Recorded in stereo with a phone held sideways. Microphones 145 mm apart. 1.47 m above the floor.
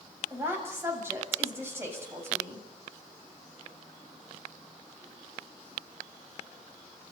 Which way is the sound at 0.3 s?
15° right (ahead or behind).